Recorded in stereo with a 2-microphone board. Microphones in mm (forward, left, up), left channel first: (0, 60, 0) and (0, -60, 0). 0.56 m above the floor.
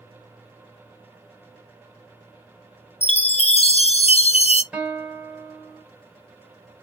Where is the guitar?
10° right (ahead or behind), 1.4 m.